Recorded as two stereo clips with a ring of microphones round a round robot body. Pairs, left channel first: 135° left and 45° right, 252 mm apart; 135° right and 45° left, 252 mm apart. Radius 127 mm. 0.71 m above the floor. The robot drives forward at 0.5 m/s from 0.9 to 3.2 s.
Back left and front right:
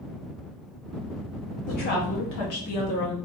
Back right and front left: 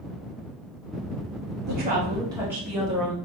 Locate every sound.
1.7 s a woman speaking: 85° left, 0.7 m; by 3.1 s 145° left, 1.0 m